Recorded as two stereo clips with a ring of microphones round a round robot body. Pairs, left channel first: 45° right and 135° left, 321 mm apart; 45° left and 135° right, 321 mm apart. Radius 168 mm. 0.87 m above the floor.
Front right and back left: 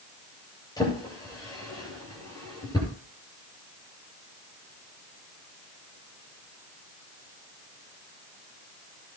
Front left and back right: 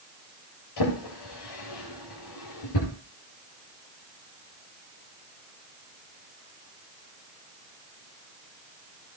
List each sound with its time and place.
0.8 s a drawer: 35° left, 8 m